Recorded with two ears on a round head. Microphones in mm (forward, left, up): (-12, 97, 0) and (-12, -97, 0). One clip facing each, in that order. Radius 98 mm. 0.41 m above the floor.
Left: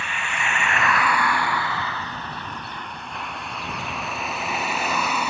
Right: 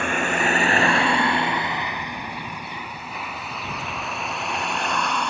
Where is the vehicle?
45° right (ahead or behind); by 5.3 s 5° left (ahead or behind).